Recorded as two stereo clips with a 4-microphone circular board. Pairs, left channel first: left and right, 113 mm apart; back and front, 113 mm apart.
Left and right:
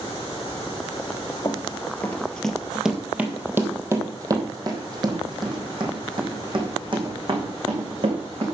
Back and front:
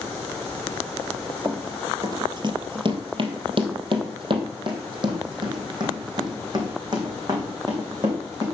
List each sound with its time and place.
1.4 s running footsteps: 50° left, 1.5 m; by 8.4 s 55° right, 5 m